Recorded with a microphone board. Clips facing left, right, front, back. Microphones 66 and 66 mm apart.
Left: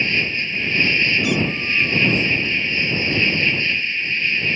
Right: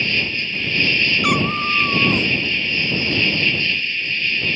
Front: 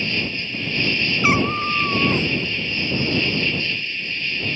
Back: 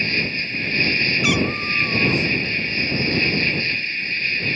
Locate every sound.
0.0 s an insect: 150° left
1.2 s a cat meowing: 55° right